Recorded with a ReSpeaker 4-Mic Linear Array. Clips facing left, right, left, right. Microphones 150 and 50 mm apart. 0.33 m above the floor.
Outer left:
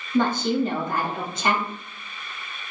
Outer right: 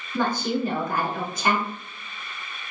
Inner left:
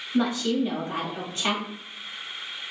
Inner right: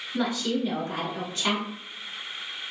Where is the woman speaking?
25° left (ahead or behind), 1.8 m.